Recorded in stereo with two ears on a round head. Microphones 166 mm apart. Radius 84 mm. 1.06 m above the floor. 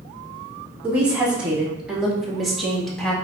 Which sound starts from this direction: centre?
A woman speaking, at 0.8 s.